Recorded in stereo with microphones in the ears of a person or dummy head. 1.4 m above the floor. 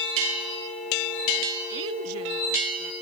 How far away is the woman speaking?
About 0.7 m.